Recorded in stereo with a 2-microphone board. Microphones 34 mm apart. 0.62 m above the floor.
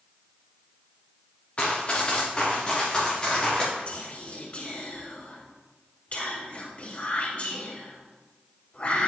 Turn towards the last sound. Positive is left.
turn(degrees=45)  # may be behind; listen again after turning